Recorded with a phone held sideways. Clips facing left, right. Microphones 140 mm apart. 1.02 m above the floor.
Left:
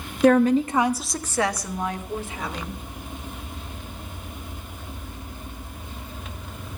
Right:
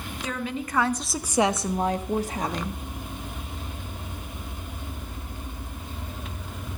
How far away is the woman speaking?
About 0.7 m.